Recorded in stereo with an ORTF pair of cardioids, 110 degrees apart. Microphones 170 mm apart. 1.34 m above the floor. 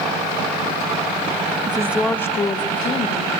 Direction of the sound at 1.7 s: 30° right.